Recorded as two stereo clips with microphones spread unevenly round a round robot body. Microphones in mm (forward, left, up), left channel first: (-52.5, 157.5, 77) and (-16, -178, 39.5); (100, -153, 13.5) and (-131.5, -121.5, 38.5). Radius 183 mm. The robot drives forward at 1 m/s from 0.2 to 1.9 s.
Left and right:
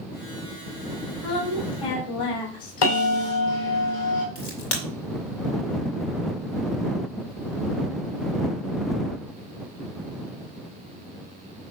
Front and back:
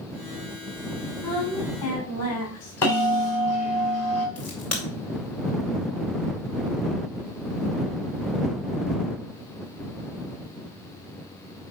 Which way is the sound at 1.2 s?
70° left.